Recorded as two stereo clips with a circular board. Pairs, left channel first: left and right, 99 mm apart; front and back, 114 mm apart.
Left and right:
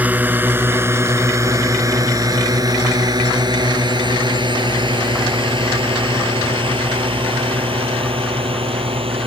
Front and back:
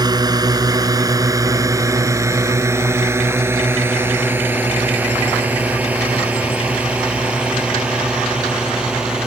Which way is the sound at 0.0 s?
155° right.